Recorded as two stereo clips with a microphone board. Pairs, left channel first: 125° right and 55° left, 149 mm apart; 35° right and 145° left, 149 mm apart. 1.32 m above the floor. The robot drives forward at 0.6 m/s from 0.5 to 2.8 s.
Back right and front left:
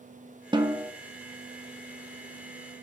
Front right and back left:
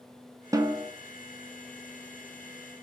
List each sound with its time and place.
0.5 s a snare drum: 90° left, 0.9 m; by 0.9 s 115° left, 0.9 m